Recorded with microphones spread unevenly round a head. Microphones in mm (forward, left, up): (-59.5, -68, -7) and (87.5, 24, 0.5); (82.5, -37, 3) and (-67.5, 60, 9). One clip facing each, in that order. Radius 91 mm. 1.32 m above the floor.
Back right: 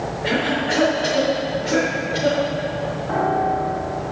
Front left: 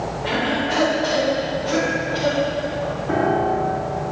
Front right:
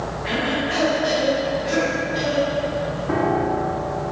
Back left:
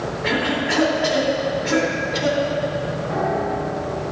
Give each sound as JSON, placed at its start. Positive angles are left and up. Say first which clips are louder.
{"t": 0.2, "sound": "a cough", "louder": "back right 1 dB, back left 2 dB", "azimuth_deg": 140, "distance_m": 3.5}
{"t": 3.1, "sound": "a piano", "louder": "front left 1 dB, front right 3 dB", "azimuth_deg": -20, "distance_m": 2.0}